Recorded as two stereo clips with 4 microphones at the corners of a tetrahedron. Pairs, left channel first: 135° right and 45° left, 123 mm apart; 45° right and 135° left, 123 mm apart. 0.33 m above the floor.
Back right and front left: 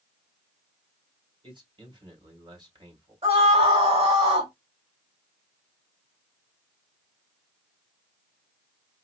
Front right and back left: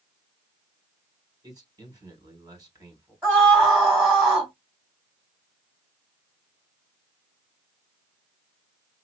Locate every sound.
1.4 s a man speaking: 85° left, 2.5 m
3.2 s a scream: 65° left, 1.7 m